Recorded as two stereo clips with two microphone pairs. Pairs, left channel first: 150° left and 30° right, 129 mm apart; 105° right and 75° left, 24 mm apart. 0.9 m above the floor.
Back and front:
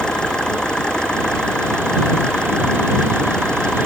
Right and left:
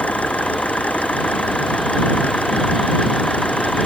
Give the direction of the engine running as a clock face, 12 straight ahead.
4 o'clock.